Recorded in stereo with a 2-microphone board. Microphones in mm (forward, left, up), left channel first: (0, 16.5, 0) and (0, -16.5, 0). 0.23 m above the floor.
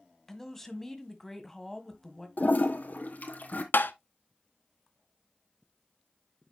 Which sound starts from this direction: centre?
A man speaking, at 0.3 s.